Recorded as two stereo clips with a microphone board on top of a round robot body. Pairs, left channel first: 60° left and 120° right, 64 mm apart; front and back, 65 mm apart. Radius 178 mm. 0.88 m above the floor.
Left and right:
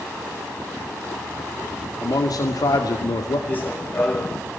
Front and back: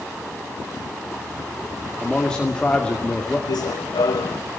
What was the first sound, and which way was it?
A man speaking, 80° left.